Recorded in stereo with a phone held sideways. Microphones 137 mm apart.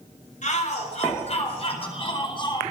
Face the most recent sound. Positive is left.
turn(degrees=35)  # may be behind; listen again after turning